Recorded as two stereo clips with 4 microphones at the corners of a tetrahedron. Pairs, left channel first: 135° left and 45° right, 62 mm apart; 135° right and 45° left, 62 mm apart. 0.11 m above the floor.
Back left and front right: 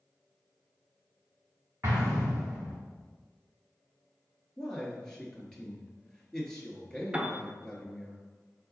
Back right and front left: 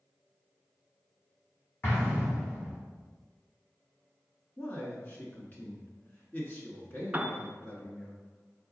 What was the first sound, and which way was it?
An explosion, 90° right.